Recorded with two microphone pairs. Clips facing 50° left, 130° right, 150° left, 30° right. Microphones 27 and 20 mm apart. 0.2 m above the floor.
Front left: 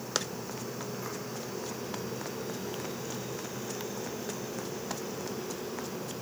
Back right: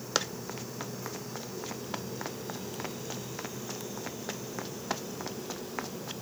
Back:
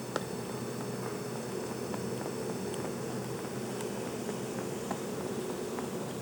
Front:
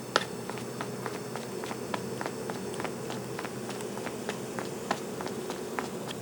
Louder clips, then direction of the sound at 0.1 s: Back right 2 dB, front 7 dB; 50° right.